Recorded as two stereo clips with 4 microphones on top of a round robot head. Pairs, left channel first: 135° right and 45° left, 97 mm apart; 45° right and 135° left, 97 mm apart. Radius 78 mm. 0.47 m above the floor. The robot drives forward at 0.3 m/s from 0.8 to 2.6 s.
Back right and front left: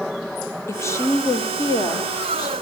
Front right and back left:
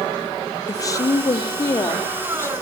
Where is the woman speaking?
85° right, 1.6 m; by 2.5 s 105° right, 1.7 m.